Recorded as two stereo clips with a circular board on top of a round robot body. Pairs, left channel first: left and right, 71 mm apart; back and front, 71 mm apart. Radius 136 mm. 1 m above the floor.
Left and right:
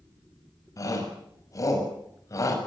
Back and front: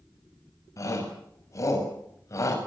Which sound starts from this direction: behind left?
A shout, at 0.8 s.